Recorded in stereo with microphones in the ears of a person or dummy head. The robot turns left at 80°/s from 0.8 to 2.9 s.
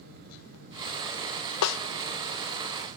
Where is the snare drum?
75° left (ahead or behind), 0.5 m; by 1.8 s 80° left, 0.5 m.